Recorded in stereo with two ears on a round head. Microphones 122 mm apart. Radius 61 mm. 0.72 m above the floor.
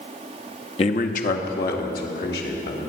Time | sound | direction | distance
0.8 | a man speaking | 45° left (ahead or behind) | 0.7 m